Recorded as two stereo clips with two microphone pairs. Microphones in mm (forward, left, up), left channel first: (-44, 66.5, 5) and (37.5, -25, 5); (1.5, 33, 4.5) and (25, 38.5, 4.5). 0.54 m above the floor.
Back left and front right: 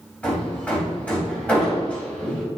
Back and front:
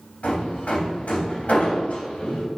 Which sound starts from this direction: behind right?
Hammering, at 0.2 s.